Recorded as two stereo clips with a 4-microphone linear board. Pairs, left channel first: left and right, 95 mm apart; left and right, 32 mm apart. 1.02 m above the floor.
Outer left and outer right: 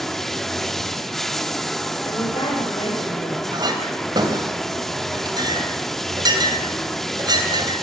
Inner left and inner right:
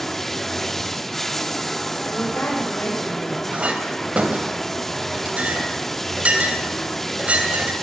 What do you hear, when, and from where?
0.0 s running water: 5° left (ahead or behind), 0.9 m
2.1 s a woman speaking: 60° left (ahead or behind), 6 m
3.5 s a clink: 45° right (ahead or behind), 3 m